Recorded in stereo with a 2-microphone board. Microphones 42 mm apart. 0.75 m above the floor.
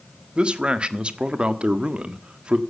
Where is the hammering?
I don't hear hammering.